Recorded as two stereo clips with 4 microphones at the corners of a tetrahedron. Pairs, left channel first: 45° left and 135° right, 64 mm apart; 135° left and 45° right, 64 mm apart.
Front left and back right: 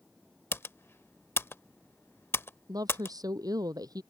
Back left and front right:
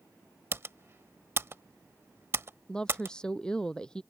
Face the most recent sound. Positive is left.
turn(degrees=-145)